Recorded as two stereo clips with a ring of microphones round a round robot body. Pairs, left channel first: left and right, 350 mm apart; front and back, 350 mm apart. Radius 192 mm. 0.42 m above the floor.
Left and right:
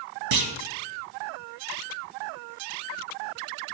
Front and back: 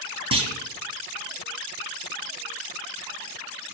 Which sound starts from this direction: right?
A clunk, at 0.3 s.